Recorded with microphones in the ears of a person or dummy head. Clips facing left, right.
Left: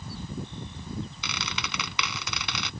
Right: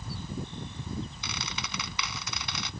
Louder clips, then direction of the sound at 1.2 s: Left 2 dB; 60° left (ahead or behind).